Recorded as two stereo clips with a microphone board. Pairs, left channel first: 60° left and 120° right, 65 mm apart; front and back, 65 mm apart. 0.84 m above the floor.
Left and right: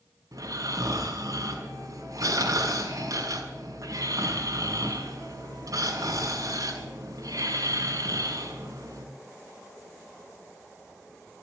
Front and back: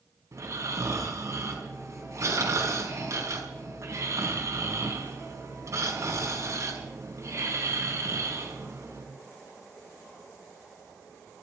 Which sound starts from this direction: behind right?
Snoring, at 0.3 s.